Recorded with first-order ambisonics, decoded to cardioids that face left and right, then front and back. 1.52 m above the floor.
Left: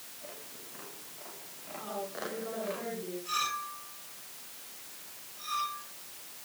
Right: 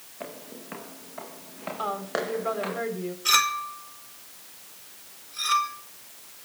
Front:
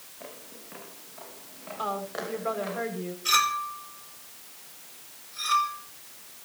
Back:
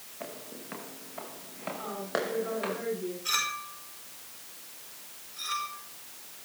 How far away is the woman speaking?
About 7.5 m.